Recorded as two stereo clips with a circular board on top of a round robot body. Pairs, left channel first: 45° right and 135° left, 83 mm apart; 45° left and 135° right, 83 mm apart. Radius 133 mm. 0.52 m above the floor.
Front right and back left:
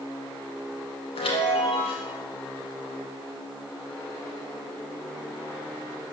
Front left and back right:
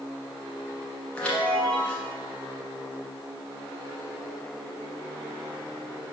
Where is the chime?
35° right, 1.4 m.